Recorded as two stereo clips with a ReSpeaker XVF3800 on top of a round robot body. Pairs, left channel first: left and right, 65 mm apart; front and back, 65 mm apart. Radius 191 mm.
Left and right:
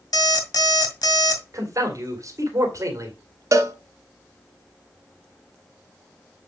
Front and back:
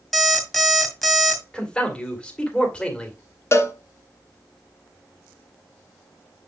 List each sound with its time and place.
0.1 s an alarm clock: 80° left, 2 m
1.5 s a man speaking: 75° right, 2.5 m
3.5 s a cowbell: 50° right, 1.0 m